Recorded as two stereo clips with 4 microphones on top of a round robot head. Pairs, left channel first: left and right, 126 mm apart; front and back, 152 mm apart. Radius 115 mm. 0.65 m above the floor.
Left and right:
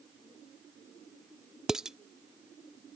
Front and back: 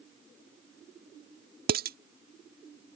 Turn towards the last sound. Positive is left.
turn(degrees=-175)